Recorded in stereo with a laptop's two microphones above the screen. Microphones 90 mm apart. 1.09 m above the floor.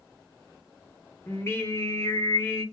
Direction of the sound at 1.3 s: 25° left (ahead or behind).